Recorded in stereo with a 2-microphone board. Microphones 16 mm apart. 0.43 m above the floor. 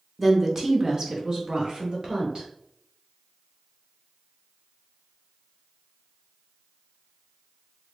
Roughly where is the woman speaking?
Centre.